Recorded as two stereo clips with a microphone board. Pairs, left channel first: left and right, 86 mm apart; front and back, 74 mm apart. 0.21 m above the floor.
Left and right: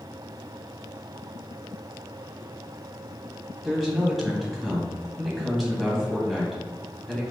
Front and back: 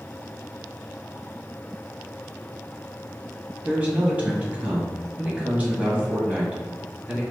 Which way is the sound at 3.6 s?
Straight behind.